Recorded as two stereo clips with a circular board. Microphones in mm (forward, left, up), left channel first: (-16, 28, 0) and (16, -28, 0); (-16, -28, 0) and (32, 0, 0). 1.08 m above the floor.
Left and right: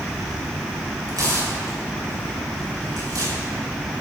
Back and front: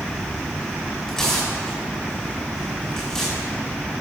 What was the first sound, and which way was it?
Tearing paper, 75° right.